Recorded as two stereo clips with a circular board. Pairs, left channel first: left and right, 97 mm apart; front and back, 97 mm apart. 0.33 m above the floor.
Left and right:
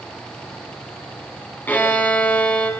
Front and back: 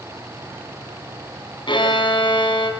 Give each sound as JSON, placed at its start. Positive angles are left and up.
{"t": 1.7, "sound": "a violin", "azimuth_deg": 20, "distance_m": 3.5}